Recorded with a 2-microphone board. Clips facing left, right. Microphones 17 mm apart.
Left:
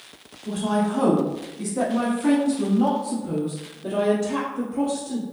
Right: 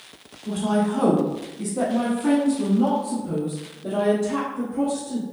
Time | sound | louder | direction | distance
0.5 | a woman speaking | right 1 dB | 10° right (ahead or behind) | 1.2 m